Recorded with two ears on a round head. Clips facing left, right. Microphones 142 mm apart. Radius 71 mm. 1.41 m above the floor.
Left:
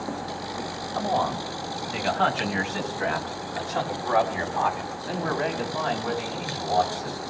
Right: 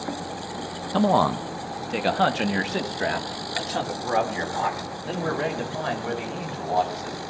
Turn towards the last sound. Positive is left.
turn(degrees=-25)  # may be behind; listen again after turning